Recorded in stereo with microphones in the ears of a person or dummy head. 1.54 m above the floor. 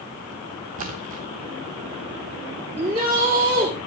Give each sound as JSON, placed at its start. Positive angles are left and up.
{"t": 0.8, "sound": "a splash", "side_deg": -35, "distance_m": 1.0}
{"t": 2.8, "sound": "a shout", "side_deg": -35, "distance_m": 3.5}